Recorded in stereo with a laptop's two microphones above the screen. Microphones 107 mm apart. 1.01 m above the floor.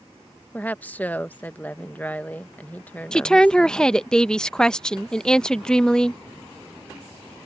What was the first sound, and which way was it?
A woman speaking, 15° left (ahead or behind).